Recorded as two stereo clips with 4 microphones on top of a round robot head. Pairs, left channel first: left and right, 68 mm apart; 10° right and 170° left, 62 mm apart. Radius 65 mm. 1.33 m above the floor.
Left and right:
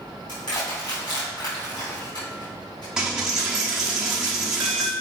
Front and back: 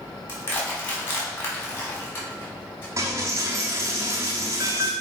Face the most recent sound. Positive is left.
turn(degrees=-165)